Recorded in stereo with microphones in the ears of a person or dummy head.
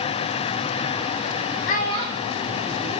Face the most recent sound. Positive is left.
turn(degrees=10)  # may be behind; listen again after turning